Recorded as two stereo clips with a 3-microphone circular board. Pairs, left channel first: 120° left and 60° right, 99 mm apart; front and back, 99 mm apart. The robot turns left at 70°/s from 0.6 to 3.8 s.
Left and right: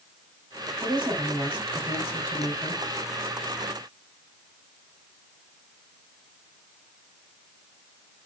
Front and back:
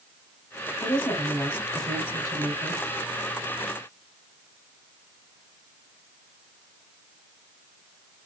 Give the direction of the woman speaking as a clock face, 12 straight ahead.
1 o'clock.